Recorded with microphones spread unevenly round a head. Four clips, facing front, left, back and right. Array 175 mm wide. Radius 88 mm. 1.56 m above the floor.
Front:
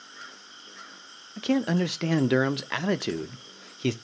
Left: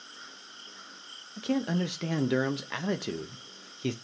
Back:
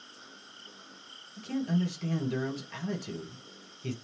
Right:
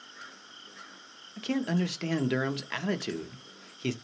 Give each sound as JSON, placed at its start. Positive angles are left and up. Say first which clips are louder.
{"t": 1.4, "sound": "a man speaking", "louder": "even, front 6 dB", "azimuth_deg": 10, "distance_m": 0.5}